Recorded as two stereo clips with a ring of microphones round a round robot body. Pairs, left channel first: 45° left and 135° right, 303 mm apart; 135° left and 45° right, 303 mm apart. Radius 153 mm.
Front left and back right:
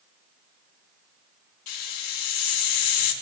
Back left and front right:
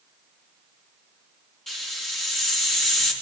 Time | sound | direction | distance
1.7 | a hiss | 45° left | 3.5 m